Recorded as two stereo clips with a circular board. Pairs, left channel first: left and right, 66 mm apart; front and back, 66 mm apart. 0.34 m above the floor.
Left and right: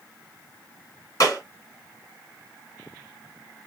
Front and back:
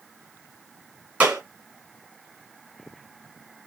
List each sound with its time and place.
1.2 s a clap: 115° left, 2 m